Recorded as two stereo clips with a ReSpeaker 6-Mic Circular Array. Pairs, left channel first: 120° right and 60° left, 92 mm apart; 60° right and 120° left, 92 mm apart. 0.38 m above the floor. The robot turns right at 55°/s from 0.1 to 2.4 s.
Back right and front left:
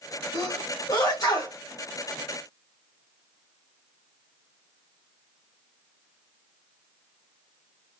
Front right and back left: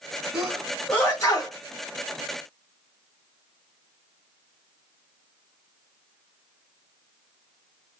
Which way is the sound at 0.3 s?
155° right.